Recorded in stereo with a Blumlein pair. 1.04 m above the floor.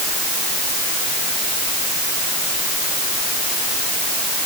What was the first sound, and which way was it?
Only background noise.